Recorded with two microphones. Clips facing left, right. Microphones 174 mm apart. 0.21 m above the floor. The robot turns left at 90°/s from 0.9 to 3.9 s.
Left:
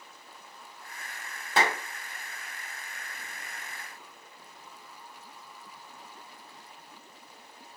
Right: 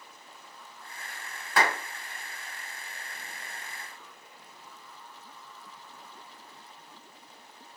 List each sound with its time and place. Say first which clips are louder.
1.6 s a clap: even; 25° left (ahead or behind), 1.0 m; by 1.8 s 10° left (ahead or behind), 1.0 m